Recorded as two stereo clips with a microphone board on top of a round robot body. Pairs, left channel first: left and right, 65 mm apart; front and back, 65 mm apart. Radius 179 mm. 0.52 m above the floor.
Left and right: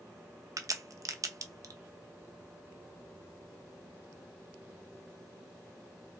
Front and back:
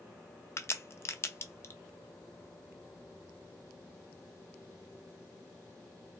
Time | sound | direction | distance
0.6 | a crack | 55° right | 0.6 m